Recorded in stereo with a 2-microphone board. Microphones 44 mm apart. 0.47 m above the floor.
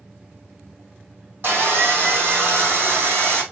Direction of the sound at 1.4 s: 50° right (ahead or behind).